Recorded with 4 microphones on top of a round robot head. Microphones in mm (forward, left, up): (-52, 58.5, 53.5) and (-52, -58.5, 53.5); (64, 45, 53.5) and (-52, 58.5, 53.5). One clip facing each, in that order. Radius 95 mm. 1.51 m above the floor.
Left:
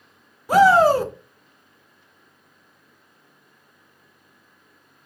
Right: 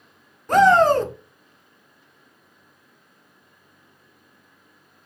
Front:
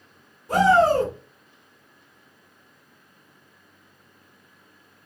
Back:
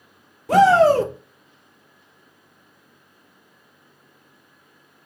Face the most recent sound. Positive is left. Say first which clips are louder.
# left 1 dB, back 4 dB
turn(degrees=175)